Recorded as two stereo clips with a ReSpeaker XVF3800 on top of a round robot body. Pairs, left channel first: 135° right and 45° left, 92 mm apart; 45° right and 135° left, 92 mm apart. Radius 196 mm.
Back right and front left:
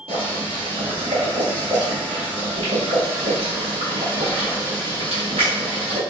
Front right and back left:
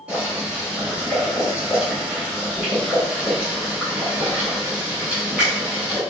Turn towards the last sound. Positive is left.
turn(degrees=55)